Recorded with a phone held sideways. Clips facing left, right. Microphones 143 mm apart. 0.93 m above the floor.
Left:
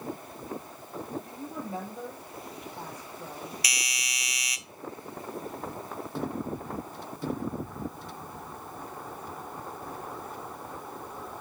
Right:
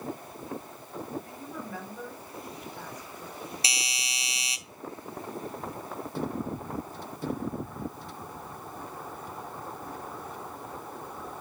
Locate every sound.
1.2 s a woman speaking: 25° left (ahead or behind), 4.5 m
3.6 s a doorbell: 30° right (ahead or behind), 0.7 m